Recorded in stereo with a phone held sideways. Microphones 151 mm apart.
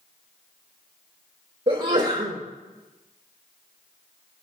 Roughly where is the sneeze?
Right.